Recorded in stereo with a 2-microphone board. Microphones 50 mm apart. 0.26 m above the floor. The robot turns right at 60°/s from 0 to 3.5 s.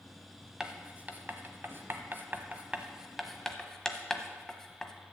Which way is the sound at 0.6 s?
15° right (ahead or behind).